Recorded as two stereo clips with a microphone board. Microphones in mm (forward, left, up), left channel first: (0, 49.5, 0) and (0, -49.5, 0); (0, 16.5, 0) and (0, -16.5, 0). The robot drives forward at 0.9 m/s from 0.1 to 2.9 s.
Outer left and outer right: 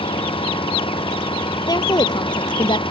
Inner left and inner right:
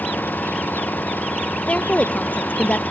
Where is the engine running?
65° left (ahead or behind).